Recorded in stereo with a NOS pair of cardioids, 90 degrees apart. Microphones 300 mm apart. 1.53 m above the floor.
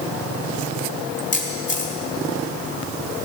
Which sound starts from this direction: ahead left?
A camera shutter, at 1.3 s.